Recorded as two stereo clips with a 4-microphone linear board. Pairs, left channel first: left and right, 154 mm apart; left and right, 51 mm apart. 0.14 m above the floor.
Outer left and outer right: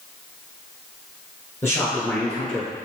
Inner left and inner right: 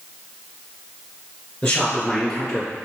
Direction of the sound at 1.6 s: 20° left (ahead or behind).